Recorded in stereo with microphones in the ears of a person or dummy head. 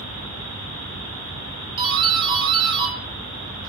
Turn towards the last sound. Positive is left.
turn(degrees=-15)  # may be behind; listen again after turning